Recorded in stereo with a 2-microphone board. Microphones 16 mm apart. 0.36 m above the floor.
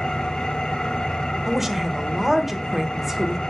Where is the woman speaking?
20° right (ahead or behind), 0.9 m.